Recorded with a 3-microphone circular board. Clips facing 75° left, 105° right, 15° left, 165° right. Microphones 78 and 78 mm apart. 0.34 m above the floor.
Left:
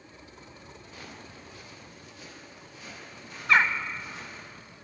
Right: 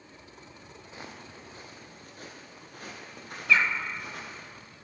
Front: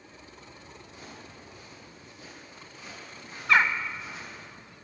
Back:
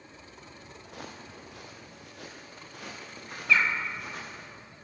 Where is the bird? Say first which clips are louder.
Left 2 dB, front 3 dB; 40° left, 0.6 m.